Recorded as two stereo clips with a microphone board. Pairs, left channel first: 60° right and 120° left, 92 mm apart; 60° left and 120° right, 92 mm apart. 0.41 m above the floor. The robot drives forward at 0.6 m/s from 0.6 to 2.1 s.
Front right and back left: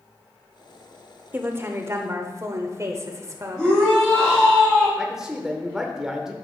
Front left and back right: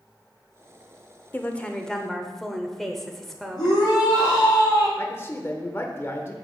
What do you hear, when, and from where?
1.3 s a woman speaking: 95° left, 0.8 m; by 3.8 s 145° left, 0.9 m
3.6 s a shout: 30° left, 3 m
5.0 s a man speaking: 45° left, 0.9 m